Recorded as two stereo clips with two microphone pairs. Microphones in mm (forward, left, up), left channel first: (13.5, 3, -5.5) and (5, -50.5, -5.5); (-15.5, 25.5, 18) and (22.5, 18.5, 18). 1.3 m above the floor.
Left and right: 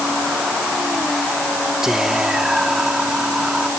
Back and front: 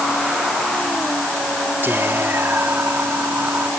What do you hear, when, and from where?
1.8 s whispering: 20° right